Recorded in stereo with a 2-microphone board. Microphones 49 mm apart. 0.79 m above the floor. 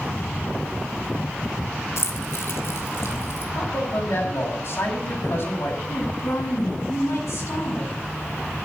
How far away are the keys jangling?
About 2.5 m.